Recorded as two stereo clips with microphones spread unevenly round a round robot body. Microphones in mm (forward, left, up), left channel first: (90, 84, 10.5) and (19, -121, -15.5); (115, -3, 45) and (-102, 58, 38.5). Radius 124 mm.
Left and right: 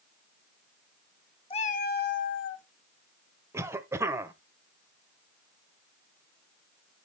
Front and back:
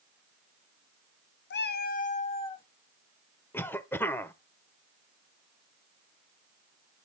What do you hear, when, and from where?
1.5 s a cat meowing: 5° left, 0.6 m; by 2.7 s 55° left, 1.1 m
3.5 s a cough: 85° right, 0.8 m